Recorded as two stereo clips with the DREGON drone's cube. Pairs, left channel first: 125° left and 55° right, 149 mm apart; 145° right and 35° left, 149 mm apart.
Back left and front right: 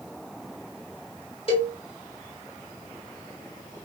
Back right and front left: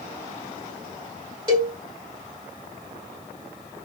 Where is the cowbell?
85° left, 1.9 m.